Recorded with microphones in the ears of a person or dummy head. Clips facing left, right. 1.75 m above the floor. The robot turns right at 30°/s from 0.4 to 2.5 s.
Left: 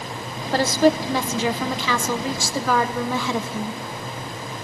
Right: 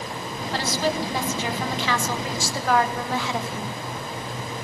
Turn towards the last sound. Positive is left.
turn(degrees=100)